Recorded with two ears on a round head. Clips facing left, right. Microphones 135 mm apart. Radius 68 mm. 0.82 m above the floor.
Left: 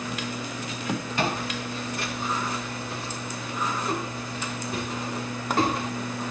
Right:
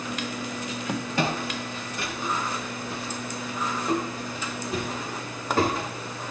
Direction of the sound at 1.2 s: 80° right.